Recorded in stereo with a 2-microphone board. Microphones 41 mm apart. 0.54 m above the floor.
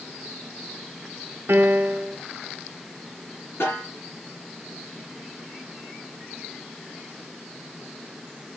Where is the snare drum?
65° left (ahead or behind), 4.5 m.